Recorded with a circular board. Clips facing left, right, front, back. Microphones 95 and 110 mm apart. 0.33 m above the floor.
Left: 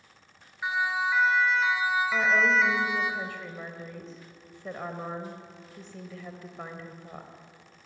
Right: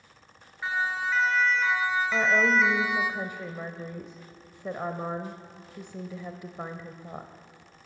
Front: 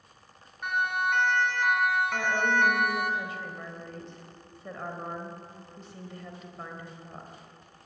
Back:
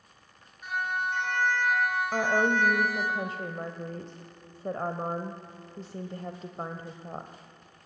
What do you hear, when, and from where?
0.6 s a siren: 15° left, 4 m; by 3.1 s 5° right, 2.5 m
2.1 s a woman speaking: 155° right, 1.3 m